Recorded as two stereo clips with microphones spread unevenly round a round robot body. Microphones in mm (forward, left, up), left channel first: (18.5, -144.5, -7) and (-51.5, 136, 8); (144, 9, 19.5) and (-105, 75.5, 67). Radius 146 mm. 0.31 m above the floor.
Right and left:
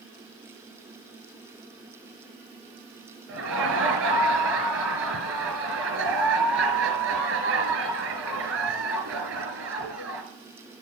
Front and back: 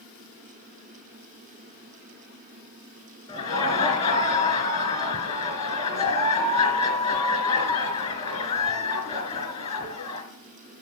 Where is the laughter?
50° left, 4 m.